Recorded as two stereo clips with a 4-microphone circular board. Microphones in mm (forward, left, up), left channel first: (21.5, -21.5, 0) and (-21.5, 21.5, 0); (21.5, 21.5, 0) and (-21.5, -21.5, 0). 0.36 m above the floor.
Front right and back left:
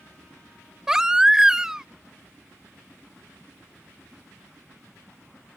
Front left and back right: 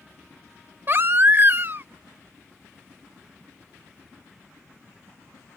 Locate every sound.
0.9 s a baby crying: 150° right